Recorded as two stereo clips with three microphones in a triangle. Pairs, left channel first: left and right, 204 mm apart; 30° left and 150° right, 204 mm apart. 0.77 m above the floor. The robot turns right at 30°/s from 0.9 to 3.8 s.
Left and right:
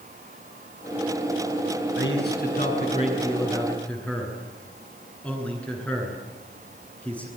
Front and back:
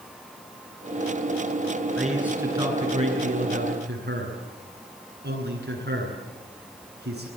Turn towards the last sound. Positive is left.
turn(degrees=175)